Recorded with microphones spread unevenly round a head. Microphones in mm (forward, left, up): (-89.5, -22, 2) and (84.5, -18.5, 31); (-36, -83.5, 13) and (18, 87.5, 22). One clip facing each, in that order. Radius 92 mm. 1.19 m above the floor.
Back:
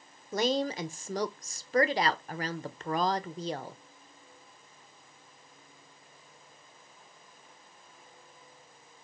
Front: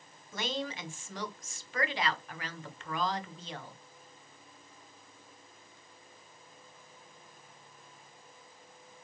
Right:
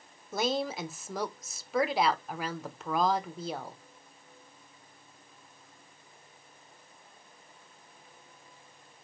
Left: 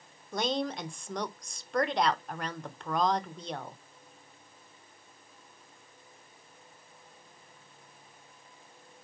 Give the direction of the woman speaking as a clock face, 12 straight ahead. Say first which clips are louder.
Back 8 dB, right 1 dB; 6 o'clock.